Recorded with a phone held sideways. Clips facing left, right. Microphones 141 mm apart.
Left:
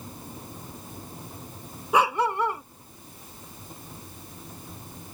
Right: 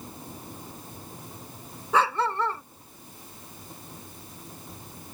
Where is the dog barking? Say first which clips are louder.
Left 2 dB; 15° left (ahead or behind).